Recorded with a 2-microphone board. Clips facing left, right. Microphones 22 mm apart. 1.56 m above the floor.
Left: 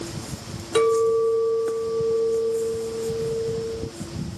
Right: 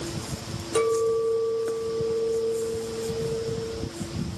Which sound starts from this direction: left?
A clink, at 0.8 s.